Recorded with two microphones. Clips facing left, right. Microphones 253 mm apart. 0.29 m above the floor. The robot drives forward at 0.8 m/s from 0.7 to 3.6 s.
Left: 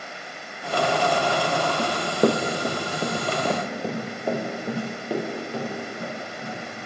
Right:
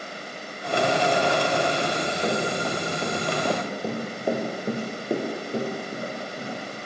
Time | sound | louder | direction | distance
1.8 | running footsteps | left 5 dB | 80° left | 2 m